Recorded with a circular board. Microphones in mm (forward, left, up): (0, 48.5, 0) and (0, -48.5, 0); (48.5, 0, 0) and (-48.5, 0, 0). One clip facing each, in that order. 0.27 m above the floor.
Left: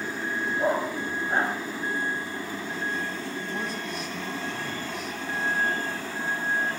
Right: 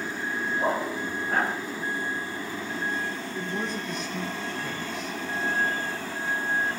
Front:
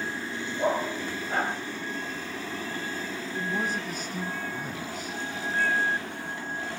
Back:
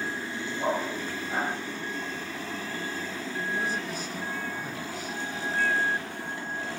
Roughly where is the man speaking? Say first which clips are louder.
Right 1 dB, front 1 dB; ahead.